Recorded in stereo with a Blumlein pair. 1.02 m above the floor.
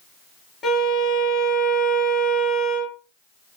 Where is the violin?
20° left, 1.1 m.